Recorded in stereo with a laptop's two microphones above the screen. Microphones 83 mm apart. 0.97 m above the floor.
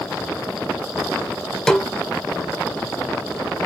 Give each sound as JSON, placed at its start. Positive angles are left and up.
{"t": 1.7, "sound": "a snare drum", "side_deg": 10, "distance_m": 1.0}